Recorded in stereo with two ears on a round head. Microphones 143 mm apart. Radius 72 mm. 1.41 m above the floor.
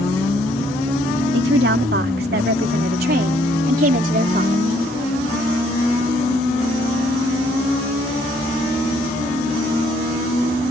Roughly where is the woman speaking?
Right.